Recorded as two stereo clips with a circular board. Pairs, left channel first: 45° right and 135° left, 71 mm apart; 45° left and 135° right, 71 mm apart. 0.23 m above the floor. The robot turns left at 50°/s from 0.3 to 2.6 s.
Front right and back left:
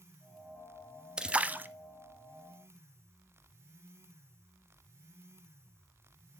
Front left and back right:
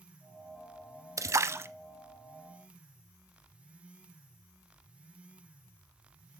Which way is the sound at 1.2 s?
150° right.